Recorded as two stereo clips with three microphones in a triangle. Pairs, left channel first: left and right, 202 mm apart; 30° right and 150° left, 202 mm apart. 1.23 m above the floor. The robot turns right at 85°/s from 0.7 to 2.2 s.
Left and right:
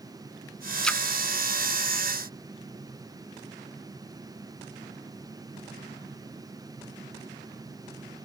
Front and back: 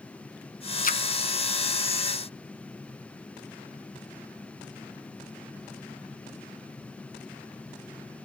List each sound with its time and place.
0.8 s a splash: straight ahead; by 1.1 s 20° left